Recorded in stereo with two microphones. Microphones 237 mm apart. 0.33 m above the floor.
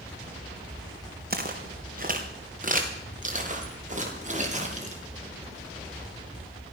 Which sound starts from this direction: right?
Footsteps, at 1.3 s.